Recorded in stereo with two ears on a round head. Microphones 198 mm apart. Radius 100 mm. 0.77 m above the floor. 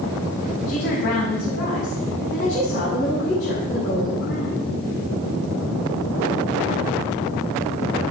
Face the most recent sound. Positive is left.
turn(degrees=60)  # may be behind; listen again after turning